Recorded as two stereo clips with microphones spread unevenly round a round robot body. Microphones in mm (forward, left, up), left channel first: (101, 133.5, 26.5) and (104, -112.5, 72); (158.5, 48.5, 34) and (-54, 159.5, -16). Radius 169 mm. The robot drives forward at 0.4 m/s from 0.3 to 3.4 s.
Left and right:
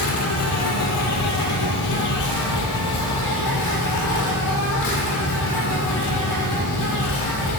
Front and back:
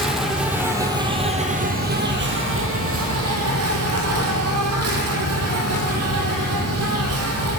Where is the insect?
60° left, 1.1 m; by 7.6 s 130° left, 1.2 m.